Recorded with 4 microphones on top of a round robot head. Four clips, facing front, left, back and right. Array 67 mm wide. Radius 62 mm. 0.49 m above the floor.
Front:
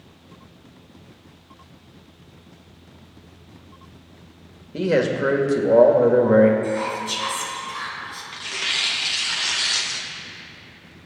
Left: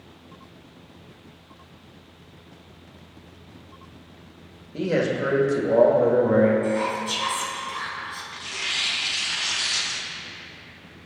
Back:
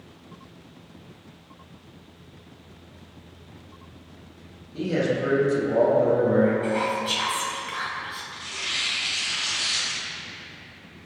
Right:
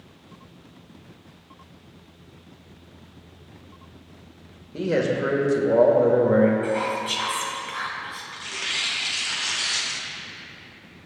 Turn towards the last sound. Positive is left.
turn(degrees=-20)